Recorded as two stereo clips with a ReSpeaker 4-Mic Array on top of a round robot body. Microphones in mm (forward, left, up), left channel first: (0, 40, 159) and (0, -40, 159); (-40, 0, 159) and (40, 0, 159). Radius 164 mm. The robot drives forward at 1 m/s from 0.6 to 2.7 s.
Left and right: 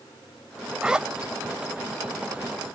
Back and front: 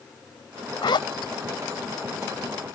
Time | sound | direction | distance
0.8 | a zipper | 170° right | ?